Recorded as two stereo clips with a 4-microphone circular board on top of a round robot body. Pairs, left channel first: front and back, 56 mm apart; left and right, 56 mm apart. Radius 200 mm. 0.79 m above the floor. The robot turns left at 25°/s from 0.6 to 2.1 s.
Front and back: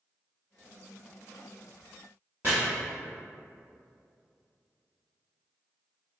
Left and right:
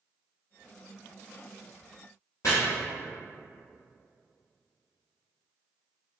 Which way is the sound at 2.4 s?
125° left.